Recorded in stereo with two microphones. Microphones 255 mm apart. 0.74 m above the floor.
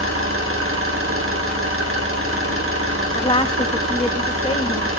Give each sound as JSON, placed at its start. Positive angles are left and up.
{"t": 0.0, "sound": "an engine running", "side_deg": -55, "distance_m": 2.0}
{"t": 3.1, "sound": "a woman speaking", "side_deg": 20, "distance_m": 0.8}